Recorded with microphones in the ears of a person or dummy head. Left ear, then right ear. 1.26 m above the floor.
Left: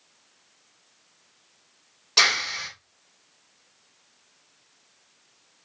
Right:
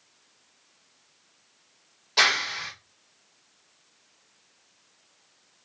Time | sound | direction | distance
2.2 | a clap | 20° left (ahead or behind) | 3.5 m